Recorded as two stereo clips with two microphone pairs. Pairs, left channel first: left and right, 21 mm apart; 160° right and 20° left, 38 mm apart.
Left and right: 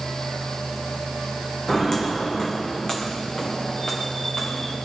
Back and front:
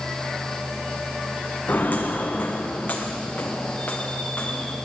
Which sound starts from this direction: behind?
Footsteps, at 1.7 s.